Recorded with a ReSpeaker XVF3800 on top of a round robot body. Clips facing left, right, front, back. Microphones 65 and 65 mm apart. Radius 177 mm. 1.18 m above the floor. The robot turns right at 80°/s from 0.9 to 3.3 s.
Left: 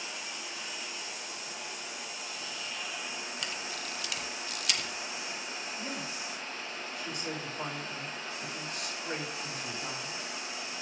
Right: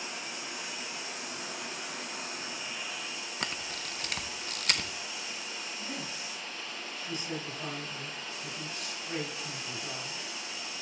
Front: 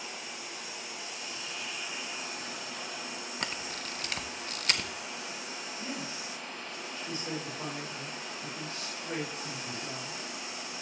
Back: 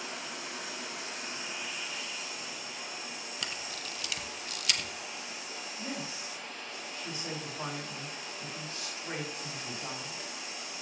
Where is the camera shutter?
45° right, 0.7 m.